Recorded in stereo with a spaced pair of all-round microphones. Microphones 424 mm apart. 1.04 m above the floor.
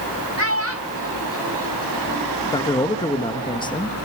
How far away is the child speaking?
About 1.4 m.